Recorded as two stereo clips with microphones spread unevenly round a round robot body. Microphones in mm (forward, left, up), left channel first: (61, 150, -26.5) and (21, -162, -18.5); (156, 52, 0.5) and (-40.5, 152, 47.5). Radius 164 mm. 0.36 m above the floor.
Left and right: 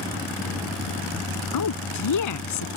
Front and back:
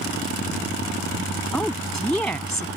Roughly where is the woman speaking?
Ahead left.